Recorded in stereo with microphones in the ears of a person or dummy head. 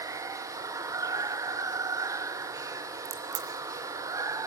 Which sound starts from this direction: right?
A crack, at 3.0 s.